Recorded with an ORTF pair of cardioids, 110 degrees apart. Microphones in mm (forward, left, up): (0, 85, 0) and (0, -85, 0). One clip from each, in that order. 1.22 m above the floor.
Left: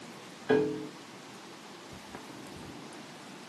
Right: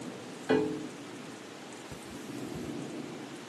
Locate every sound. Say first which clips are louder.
0.5 s a piano: left 2 dB; 5° right, 1.0 m
1.9 s cutlery clinking: right 3 dB; 45° right, 1.4 m